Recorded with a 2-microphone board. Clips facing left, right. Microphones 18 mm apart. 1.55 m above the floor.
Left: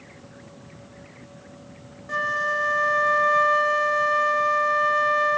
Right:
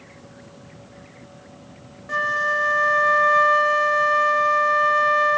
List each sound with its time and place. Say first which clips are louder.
2.1 s a flute: right 3 dB; 15° right (ahead or behind), 0.6 m